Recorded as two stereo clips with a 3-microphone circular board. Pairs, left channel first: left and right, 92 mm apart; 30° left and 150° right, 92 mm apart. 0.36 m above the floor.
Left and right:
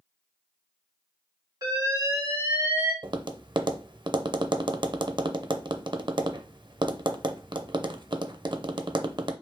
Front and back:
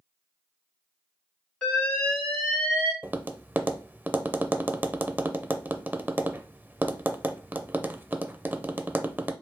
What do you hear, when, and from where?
1.6 s an alarm: 45° right, 2.5 m
3.0 s tapping: 85° right, 0.5 m